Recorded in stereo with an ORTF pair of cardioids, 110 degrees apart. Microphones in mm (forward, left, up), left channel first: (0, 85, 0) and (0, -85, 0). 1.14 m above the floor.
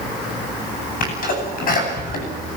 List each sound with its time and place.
1.0 s a sneeze: 55° left, 9.5 m